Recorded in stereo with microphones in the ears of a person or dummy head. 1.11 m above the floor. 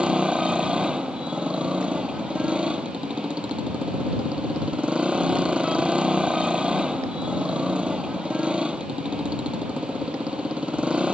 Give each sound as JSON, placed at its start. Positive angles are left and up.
{"t": 0.0, "sound": "a motorcycle", "side_deg": -5}